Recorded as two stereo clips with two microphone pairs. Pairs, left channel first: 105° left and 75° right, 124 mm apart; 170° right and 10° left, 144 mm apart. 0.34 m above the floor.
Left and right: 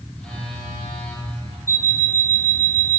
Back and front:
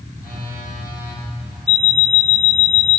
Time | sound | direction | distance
0.1 | a phone buzzing | 175° right | 2.5 m
1.7 | an alarm clock | 165° left | 0.6 m